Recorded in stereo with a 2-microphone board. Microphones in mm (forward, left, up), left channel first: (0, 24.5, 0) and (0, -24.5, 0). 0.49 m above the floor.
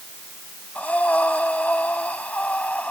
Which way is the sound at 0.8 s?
30° left (ahead or behind).